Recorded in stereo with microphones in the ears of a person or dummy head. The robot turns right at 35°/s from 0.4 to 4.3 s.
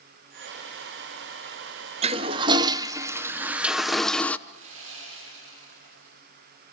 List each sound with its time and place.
2.0 s a toilet flushing: 70° right, 0.7 m; by 4.4 s 10° left, 0.7 m
4.5 s sawing: 85° right, 9.5 m